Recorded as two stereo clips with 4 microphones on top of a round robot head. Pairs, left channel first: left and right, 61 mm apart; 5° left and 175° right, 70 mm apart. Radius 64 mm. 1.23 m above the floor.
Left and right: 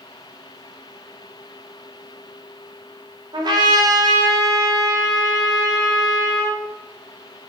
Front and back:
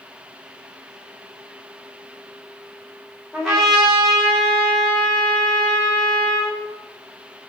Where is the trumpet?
85° right, 4 m.